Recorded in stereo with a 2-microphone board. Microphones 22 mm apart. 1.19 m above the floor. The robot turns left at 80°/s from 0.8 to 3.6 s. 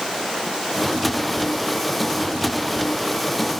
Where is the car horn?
No car horn in this recording.